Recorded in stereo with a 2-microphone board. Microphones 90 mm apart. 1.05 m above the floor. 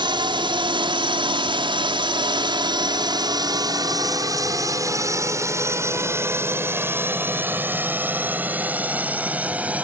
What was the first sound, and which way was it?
A drone, 60° right (ahead or behind).